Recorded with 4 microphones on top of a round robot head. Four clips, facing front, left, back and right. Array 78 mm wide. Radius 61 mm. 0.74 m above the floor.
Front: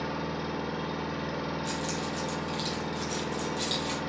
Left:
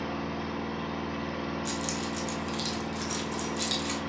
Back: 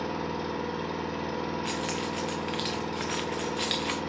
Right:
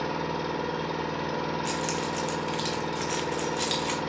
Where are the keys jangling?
150° right, 0.8 m.